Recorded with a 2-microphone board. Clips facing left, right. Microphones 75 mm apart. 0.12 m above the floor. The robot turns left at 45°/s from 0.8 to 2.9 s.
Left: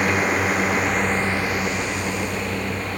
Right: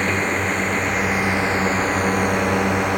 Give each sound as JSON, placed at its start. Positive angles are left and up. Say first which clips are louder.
{"t": 0.0, "sound": "a drone", "louder": "left 1 dB", "side_deg": 5}